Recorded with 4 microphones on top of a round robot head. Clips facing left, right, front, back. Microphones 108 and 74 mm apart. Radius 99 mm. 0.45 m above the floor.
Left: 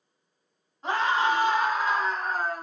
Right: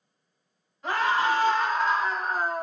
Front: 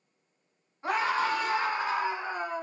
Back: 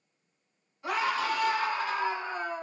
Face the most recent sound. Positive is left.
turn(degrees=-70)